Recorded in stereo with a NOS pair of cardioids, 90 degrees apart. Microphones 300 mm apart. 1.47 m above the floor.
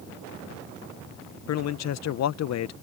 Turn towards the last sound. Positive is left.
turn(degrees=55)